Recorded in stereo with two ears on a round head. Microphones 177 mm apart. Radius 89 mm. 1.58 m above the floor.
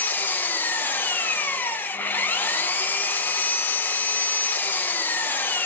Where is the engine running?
10° left (ahead or behind), 0.8 m.